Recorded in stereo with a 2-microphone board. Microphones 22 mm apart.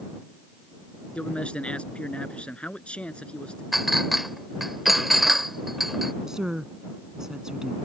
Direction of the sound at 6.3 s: 30° right (ahead or behind).